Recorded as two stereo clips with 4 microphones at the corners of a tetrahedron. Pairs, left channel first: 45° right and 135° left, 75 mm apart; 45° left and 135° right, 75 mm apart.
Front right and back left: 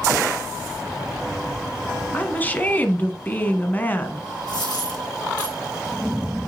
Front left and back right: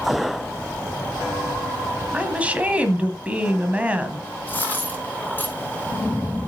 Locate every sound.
2.1 s a woman speaking: 80° right, 1.2 m
4.5 s a dropped coin: 20° right, 3 m